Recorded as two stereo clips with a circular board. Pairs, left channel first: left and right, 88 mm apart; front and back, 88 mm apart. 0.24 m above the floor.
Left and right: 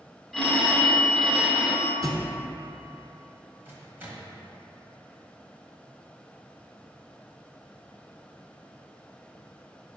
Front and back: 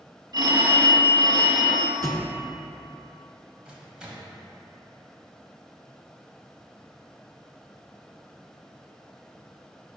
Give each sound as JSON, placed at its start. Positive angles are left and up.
{"t": 0.3, "sound": "a phone ringing", "azimuth_deg": 180, "distance_m": 0.8}
{"t": 2.0, "sound": "a thud", "azimuth_deg": -135, "distance_m": 0.6}
{"t": 3.6, "sound": "a microwave", "azimuth_deg": -120, "distance_m": 0.9}